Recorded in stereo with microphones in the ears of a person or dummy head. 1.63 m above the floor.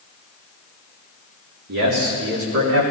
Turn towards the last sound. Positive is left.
turn(degrees=-85)